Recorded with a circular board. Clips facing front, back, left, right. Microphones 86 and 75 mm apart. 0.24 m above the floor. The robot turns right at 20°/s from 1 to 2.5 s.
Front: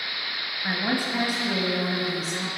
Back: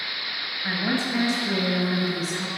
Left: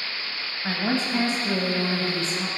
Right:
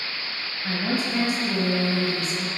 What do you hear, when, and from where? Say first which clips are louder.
0.6 s a woman speaking: back 1 dB, left 1 dB; 65° left, 1.1 m; by 2.5 s 90° left, 1.1 m